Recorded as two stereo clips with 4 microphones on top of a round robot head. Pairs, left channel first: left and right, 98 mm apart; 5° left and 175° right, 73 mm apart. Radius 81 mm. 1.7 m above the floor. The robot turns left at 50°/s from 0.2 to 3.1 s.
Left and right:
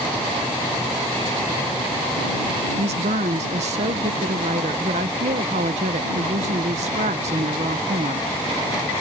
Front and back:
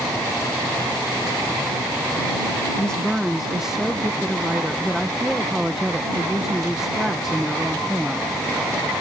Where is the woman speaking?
75° right; by 8.9 s 90° right.